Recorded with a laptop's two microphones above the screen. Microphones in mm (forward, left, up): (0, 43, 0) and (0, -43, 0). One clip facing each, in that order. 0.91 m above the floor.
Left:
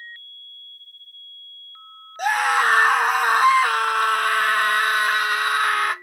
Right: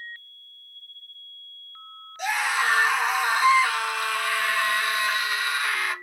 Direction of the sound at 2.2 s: 55° left (ahead or behind).